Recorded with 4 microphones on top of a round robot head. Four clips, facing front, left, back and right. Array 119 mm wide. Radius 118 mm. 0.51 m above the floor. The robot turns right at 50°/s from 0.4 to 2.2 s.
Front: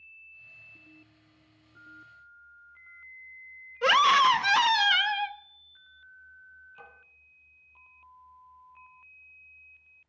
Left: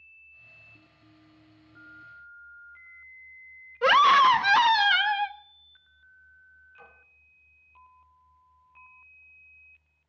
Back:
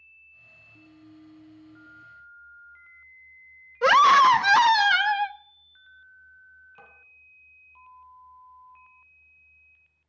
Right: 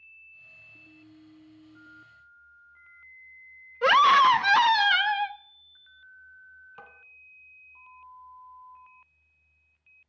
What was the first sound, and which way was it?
A scream, straight behind.